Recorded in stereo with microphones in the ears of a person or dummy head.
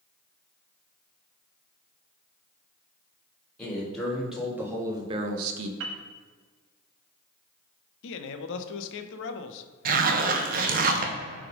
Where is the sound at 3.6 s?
10° left (ahead or behind), 3 m; by 5.7 s 80° right, 0.8 m.